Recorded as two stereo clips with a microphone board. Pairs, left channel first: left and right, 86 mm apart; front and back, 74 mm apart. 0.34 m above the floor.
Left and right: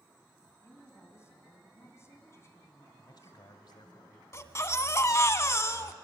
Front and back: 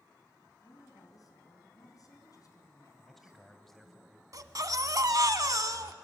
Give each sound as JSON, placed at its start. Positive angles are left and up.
{"t": 0.6, "sound": "a woman speaking", "azimuth_deg": 35, "distance_m": 3.5}
{"t": 3.0, "sound": "a man speaking", "azimuth_deg": 85, "distance_m": 2.0}
{"t": 4.3, "sound": "a baby crying", "azimuth_deg": 145, "distance_m": 0.9}